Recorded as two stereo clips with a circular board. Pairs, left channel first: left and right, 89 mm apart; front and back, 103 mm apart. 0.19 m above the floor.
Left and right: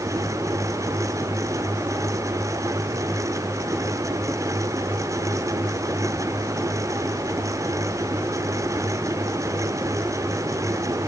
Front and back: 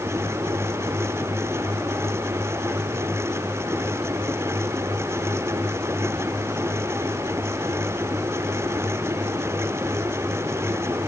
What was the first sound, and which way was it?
Only background noise.